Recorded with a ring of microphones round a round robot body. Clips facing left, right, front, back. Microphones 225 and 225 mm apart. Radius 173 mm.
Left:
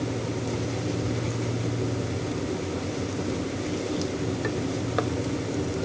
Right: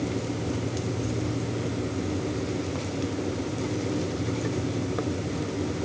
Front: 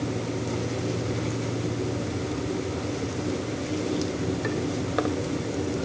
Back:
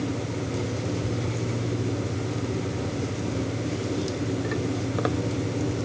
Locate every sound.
Only background noise.